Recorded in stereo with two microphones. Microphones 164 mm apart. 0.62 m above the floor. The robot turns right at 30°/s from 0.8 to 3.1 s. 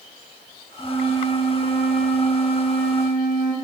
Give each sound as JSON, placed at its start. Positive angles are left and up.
{"t": 0.8, "sound": "a flute", "azimuth_deg": 10, "distance_m": 8.5}